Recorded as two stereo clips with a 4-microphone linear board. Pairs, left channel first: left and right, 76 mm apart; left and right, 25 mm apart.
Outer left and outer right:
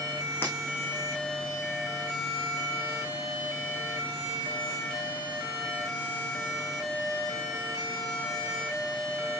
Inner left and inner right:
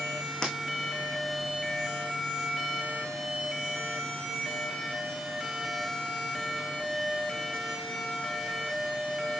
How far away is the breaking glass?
About 3.5 m.